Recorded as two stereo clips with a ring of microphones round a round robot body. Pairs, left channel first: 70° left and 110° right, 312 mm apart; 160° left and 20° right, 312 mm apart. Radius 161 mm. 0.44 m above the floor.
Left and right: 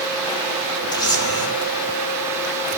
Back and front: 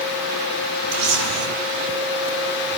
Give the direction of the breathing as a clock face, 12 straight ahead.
No breathing in this recording.